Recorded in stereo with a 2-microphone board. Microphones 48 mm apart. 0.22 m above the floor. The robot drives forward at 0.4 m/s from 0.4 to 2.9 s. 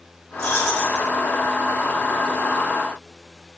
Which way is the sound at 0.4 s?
70° left (ahead or behind).